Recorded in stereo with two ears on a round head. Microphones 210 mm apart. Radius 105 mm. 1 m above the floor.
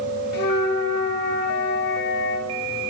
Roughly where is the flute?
Left.